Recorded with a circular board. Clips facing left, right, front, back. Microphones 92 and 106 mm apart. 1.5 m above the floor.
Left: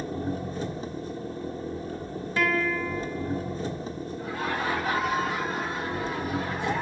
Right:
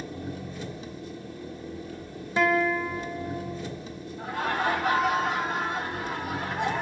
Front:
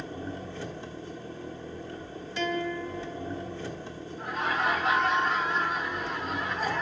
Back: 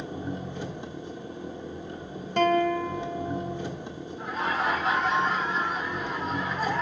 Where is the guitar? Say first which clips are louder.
Right 3 dB, back 8 dB; 155° right, 0.8 m.